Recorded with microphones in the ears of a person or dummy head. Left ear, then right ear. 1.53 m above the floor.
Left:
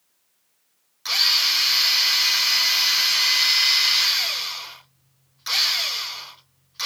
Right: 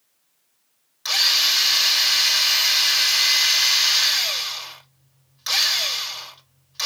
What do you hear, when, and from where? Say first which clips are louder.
1.1 s a drill: right 1 dB; 5° right (ahead or behind), 3 m